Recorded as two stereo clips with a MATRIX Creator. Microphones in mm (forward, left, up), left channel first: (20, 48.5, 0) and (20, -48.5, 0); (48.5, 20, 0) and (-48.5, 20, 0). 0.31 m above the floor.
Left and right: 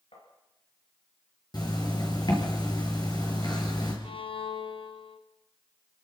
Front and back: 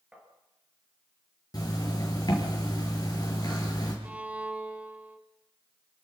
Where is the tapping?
100° left, 5.5 m.